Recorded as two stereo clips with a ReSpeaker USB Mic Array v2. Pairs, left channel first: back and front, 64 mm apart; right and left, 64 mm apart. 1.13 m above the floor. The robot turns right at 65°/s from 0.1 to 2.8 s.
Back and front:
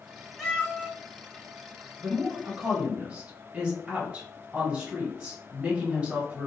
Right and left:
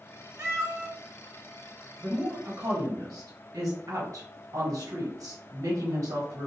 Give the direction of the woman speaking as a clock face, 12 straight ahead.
11 o'clock.